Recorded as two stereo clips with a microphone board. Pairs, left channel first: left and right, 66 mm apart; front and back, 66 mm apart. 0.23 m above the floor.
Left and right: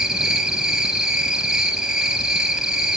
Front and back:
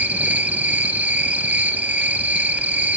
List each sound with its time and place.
0.0 s an insect: 155° right, 1.0 m